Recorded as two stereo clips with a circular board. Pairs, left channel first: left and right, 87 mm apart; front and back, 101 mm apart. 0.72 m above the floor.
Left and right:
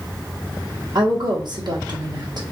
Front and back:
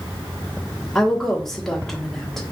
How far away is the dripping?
No dripping in this recording.